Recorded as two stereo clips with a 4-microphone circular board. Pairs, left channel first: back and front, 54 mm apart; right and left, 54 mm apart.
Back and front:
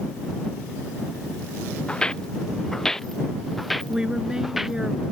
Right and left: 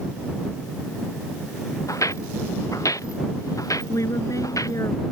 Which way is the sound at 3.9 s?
80° right.